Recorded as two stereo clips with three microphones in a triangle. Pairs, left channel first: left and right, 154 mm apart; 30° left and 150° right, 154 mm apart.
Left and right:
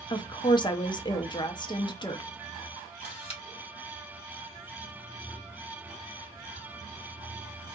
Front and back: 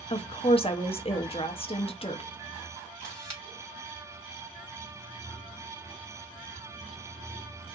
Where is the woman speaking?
50° left, 0.6 m.